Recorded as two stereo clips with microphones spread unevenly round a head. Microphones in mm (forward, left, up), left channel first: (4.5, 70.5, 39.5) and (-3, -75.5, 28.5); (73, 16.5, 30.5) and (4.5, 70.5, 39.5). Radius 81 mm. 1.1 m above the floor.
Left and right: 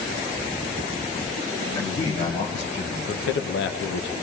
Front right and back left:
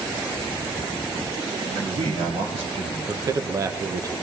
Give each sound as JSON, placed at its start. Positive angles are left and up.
{"t": 1.8, "sound": "a man speaking", "azimuth_deg": 160, "distance_m": 1.8}
{"t": 3.1, "sound": "a man speaking", "azimuth_deg": 90, "distance_m": 0.5}